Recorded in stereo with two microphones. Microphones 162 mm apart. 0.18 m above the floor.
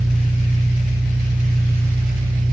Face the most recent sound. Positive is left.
turn(degrees=15)  # may be behind; listen again after turning